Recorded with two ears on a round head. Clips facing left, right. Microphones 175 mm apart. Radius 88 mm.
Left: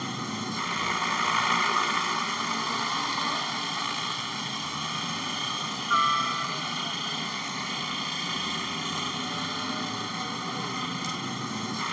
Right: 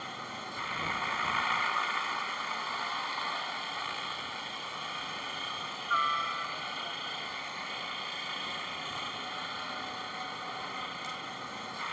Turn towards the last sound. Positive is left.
turn(degrees=55)  # may be behind; listen again after turning